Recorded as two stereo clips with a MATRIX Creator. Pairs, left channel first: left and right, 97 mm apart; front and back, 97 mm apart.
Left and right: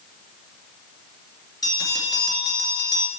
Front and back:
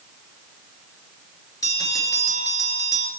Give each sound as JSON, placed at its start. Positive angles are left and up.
{"t": 1.6, "sound": "a bell", "azimuth_deg": 50, "distance_m": 1.1}